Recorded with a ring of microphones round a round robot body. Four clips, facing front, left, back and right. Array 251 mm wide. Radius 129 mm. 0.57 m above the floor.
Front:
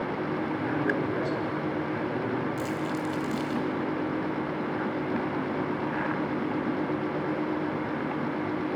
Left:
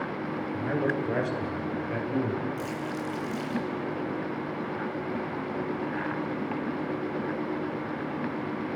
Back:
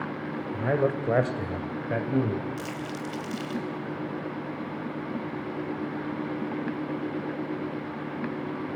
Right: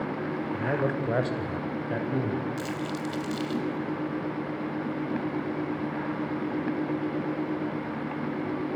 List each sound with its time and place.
0.5 s a man speaking: 165° right, 2.5 m
2.6 s crumpling: 115° right, 3.5 m